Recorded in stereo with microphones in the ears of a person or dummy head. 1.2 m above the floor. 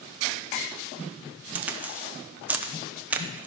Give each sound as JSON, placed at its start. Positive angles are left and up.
{"t": 1.6, "sound": "a crack", "side_deg": -15, "distance_m": 0.6}